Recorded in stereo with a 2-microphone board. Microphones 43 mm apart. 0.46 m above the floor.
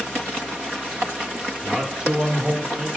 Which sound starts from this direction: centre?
A man speaking, at 1.6 s.